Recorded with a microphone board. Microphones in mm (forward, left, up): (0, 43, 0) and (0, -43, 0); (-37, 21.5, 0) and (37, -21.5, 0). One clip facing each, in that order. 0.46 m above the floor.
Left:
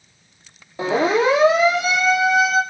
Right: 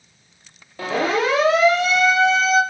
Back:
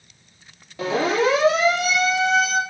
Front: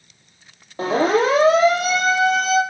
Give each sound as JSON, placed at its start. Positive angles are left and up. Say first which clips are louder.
{"t": 0.8, "sound": "a siren", "louder": "left 3 dB, front 3 dB", "azimuth_deg": 20, "distance_m": 9.5}